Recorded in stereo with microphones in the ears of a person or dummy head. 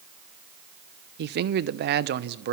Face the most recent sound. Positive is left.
turn(degrees=-50)  # may be behind; listen again after turning